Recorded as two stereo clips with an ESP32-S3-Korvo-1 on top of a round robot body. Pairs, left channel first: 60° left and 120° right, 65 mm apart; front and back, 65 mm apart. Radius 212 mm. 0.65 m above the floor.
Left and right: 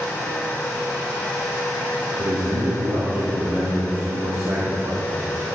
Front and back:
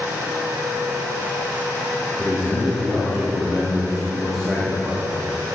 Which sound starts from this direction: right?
A man speaking, at 2.2 s.